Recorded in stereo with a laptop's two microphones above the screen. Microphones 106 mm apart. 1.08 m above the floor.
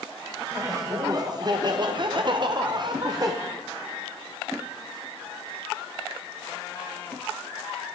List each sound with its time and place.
0.5 s laughter: 30° right (ahead or behind), 1.5 m; by 3.3 s 35° right (ahead or behind), 1.0 m